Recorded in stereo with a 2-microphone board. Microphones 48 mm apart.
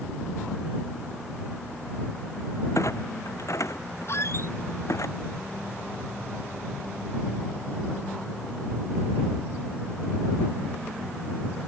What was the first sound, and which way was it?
A clunk, 75° left (ahead or behind).